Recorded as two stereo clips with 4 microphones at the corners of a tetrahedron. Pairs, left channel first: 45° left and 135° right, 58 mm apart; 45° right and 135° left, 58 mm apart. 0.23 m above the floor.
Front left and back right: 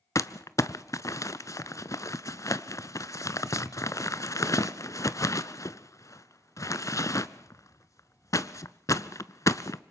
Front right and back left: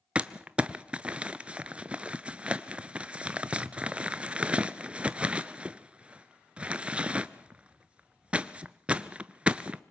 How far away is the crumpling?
About 0.6 m.